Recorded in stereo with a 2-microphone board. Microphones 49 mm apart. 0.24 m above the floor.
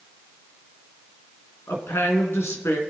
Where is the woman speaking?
60° left (ahead or behind), 3 m.